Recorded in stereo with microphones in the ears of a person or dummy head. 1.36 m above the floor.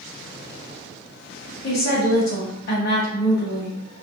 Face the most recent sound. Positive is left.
turn(degrees=60)  # may be behind; listen again after turning